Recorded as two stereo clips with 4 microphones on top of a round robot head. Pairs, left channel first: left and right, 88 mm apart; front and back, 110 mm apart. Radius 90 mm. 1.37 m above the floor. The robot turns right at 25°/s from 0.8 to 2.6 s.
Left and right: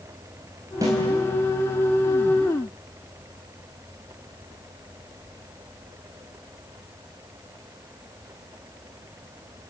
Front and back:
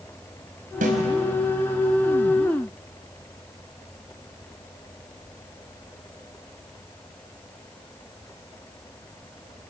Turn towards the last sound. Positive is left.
turn(degrees=-110)